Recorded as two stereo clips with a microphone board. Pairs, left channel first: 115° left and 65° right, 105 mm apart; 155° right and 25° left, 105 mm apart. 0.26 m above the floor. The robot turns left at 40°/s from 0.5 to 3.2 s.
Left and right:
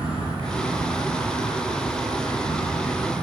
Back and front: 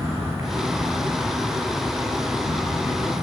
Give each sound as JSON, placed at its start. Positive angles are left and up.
{"t": 0.0, "sound": "an insect", "azimuth_deg": -40, "distance_m": 2.5}